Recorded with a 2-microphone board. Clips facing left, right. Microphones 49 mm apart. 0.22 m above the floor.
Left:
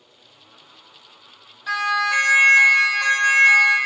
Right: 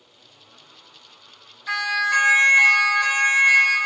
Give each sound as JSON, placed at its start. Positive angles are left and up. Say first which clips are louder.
{"t": 1.7, "sound": "a siren", "louder": "left 1 dB", "side_deg": 65, "distance_m": 5.5}